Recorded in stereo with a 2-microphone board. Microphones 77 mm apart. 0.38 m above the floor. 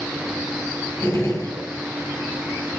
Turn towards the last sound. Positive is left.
turn(degrees=40)  # may be behind; listen again after turning